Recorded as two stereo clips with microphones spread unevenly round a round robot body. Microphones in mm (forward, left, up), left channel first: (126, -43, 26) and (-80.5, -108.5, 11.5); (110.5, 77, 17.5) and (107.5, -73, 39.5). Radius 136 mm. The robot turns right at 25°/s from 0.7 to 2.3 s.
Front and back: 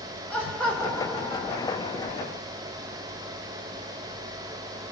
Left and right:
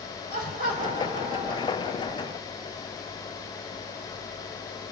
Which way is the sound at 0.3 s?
70° right.